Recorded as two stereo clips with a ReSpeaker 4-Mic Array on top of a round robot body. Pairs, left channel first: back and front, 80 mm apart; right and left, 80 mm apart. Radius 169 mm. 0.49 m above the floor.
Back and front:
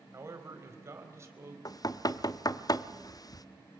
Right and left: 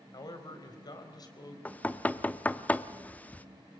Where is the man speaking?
55° right, 4 m.